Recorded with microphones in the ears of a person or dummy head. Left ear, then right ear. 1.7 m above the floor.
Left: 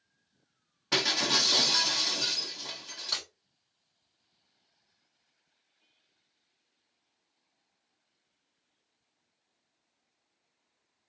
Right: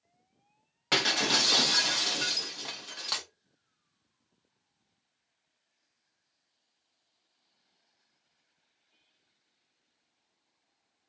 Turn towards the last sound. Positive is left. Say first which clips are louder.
# left 1 dB
turn(degrees=-30)  # may be behind; listen again after turning